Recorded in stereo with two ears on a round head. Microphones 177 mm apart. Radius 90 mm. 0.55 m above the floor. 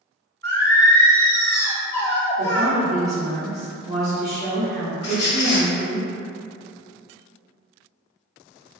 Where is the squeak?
55° left (ahead or behind), 0.7 m.